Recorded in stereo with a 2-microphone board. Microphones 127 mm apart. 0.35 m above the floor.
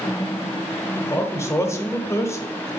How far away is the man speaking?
About 1.1 m.